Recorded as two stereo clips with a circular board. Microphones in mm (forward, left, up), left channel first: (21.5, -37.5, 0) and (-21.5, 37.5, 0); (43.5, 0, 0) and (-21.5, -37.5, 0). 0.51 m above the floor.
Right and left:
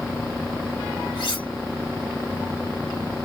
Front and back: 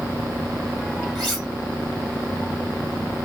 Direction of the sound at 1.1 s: 55° right.